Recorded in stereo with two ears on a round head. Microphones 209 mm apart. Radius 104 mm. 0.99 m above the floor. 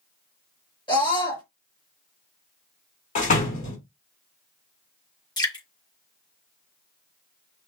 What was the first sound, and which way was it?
A scream, 20° left (ahead or behind).